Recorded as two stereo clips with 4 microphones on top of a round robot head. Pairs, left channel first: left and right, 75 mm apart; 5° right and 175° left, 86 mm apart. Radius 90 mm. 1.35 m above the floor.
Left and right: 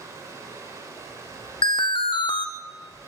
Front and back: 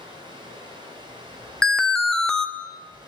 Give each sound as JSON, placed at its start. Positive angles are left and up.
{"t": 0.0, "sound": "running water", "azimuth_deg": -140, "distance_m": 5.5}
{"t": 1.6, "sound": "an alarm", "azimuth_deg": 80, "distance_m": 1.2}